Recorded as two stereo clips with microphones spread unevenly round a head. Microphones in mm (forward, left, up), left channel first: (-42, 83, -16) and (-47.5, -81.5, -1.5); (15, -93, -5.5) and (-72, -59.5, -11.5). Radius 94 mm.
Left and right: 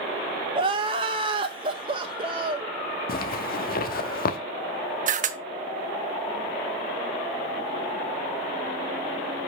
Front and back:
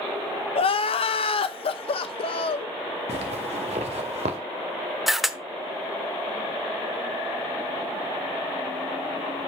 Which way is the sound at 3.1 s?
120° left.